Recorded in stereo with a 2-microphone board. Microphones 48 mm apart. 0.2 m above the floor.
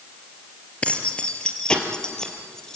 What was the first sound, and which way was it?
Keys jangling, 25° left (ahead or behind).